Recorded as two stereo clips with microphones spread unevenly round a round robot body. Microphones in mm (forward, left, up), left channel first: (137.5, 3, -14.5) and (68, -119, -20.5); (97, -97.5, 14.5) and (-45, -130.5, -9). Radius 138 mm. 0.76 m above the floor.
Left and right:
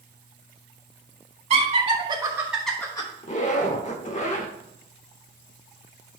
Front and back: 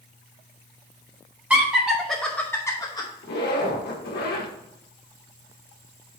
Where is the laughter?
95° right, 1.6 m; by 3.1 s 60° left, 1.0 m.